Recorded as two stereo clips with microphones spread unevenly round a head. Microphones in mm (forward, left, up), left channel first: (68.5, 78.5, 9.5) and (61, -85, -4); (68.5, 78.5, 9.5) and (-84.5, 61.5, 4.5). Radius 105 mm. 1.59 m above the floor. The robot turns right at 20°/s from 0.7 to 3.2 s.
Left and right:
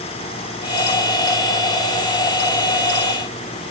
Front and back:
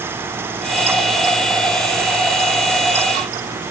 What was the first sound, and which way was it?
Only background noise.